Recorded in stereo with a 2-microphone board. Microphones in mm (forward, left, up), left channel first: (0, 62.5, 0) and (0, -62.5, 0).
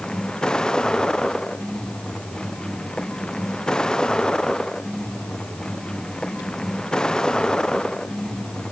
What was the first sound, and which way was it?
A vehicle, 5° left (ahead or behind).